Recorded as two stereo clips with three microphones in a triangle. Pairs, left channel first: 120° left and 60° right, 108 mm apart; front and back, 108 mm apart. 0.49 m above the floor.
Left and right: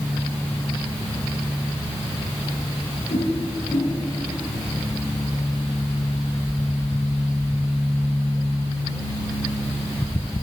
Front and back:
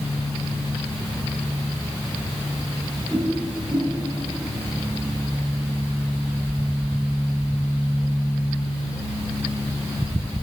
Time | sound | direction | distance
3.1 | a whoosh | 115° left | 2.5 m